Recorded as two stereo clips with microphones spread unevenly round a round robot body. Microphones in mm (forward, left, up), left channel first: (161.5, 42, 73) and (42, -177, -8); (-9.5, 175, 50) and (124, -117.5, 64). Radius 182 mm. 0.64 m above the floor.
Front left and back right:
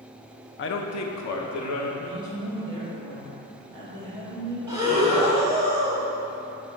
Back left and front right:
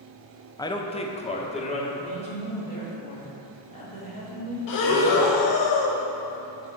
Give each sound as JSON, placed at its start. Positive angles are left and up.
{"t": 0.6, "sound": "a man speaking", "azimuth_deg": 60, "distance_m": 0.6}
{"t": 2.0, "sound": "a woman speaking", "azimuth_deg": 180, "distance_m": 1.8}
{"t": 4.7, "sound": "breathing", "azimuth_deg": 150, "distance_m": 0.7}